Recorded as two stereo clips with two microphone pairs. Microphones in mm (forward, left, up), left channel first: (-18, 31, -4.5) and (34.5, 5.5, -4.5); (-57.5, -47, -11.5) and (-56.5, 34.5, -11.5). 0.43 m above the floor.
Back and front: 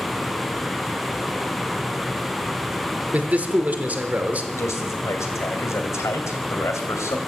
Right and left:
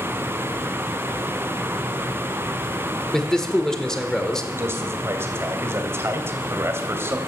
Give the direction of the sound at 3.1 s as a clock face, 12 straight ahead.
1 o'clock.